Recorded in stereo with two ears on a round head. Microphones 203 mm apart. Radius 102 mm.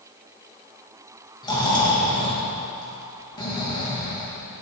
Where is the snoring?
20° left (ahead or behind), 2.5 m.